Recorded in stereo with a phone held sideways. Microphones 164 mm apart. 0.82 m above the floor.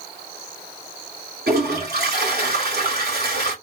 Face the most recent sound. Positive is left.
turn(degrees=-70)  # may be behind; listen again after turning